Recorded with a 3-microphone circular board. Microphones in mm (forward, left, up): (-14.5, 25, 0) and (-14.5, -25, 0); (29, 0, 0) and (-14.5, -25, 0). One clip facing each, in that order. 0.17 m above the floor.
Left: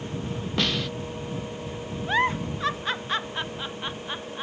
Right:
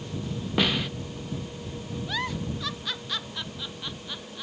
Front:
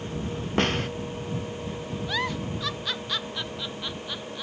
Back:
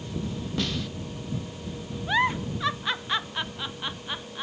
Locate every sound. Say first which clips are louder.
0.6 s a snare drum: right 2 dB, front 6 dB; 10° right
2.1 s a giggle: left 8 dB, back 6 dB; 145° left